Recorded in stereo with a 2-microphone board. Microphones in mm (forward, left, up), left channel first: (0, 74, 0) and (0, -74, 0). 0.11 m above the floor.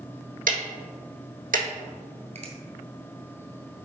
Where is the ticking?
70° right (ahead or behind), 1.0 m.